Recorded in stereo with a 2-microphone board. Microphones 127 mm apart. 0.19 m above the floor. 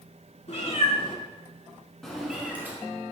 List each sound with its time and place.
0.5 s a cat meowing: 55° left (ahead or behind), 1.1 m; by 2.8 s 15° right (ahead or behind), 1.2 m